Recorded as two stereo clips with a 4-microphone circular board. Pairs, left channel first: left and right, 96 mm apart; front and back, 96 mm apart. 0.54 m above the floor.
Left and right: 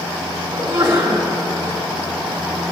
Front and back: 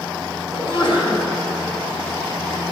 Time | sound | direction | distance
0.5 | a sneeze | 20° right | 4 m